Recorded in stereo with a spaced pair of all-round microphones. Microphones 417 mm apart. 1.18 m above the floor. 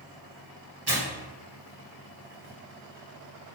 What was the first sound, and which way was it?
Tearing paper, 65° right (ahead or behind).